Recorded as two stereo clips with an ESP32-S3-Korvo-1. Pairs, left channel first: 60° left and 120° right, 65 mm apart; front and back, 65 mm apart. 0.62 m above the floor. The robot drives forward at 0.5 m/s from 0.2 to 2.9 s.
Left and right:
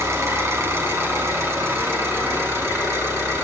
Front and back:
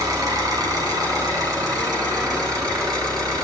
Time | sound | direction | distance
0.0 | an engine running | 165° right | 2.0 m